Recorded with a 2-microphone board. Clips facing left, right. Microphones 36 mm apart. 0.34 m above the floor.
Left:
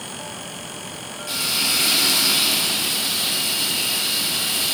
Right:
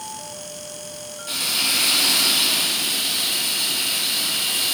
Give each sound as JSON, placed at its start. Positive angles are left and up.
{"t": 1.3, "sound": "frying", "side_deg": -30, "distance_m": 0.8}